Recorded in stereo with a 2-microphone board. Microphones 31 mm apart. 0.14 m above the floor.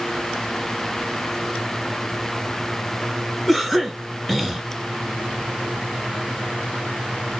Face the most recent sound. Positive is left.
turn(degrees=5)  # may be behind; listen again after turning